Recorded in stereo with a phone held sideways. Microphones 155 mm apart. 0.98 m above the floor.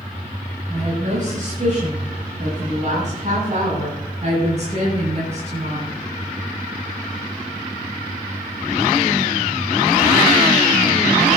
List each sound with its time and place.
0.7 s a woman speaking: 60° right (ahead or behind), 6 m; by 5.9 s 45° right (ahead or behind), 9.5 m